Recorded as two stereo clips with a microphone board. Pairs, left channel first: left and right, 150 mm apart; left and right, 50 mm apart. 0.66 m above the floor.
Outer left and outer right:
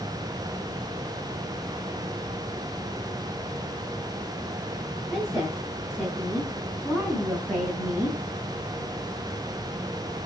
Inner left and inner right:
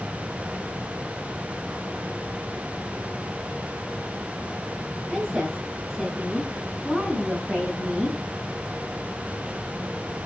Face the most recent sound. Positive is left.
turn(degrees=-15)  # may be behind; listen again after turning